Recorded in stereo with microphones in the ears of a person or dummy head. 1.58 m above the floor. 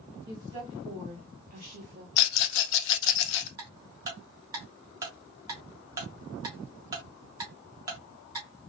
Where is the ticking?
20° right (ahead or behind), 1.5 m.